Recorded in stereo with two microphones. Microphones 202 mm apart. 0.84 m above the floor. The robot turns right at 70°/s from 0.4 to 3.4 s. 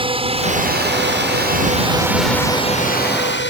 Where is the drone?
25° right (ahead or behind); by 3.5 s 65° left (ahead or behind).